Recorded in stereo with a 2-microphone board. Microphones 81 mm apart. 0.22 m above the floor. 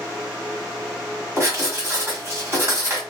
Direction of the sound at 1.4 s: 35° right (ahead or behind).